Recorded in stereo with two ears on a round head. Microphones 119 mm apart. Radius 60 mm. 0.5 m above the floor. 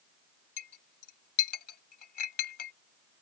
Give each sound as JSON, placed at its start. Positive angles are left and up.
{"t": 0.6, "sound": "a clink", "side_deg": 70}